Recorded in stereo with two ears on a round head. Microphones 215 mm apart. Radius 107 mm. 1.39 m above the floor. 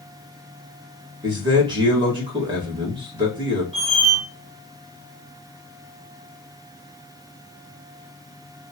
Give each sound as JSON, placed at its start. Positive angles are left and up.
{"t": 1.2, "sound": "a man speaking", "side_deg": -20, "distance_m": 1.7}
{"t": 3.7, "sound": "a squeak", "side_deg": -25, "distance_m": 1.3}